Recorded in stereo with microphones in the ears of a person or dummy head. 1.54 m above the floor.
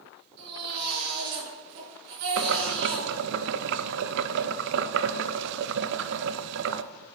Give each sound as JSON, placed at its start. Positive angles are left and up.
{"t": 0.4, "sound": "a baby crying", "side_deg": -60, "distance_m": 5.5}
{"t": 2.4, "sound": "boiling", "side_deg": -65, "distance_m": 0.5}